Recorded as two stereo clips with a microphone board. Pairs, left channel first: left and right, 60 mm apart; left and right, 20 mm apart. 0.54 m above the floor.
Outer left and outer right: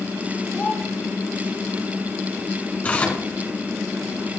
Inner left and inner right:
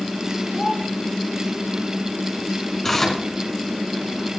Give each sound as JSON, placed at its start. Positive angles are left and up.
{"t": 0.5, "sound": "a child speaking", "side_deg": 25, "distance_m": 3.5}
{"t": 2.8, "sound": "tearing paper", "side_deg": 25, "distance_m": 2.5}